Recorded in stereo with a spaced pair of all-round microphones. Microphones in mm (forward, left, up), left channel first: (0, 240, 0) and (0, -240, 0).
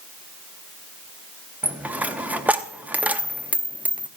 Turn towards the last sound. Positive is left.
turn(degrees=-5)  # may be behind; listen again after turning